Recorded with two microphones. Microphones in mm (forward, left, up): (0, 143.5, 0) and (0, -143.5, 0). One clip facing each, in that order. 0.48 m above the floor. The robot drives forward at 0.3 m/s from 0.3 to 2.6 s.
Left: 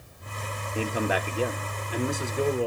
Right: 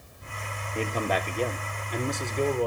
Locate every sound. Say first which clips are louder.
0.8 s a man speaking: left 1 dB; 10° left (ahead or behind), 0.7 m; by 2.7 s 5° left (ahead or behind), 1.1 m